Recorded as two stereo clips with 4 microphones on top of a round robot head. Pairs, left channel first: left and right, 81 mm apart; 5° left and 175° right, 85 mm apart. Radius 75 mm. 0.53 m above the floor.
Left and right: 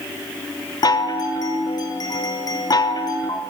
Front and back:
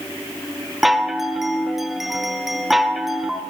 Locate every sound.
0.8 s a chime: 100° left, 0.6 m